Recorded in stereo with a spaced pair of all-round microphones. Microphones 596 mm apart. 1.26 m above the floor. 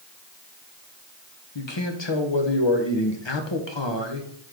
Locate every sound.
1.6 s a man speaking: 50° left (ahead or behind), 1.2 m